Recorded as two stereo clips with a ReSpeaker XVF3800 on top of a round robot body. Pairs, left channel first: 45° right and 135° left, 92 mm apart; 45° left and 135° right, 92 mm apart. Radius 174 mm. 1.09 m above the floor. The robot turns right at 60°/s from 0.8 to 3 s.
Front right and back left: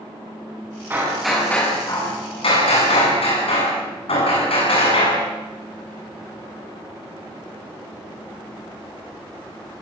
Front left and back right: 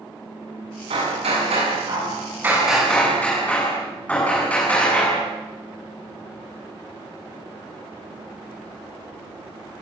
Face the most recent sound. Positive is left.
turn(degrees=-30)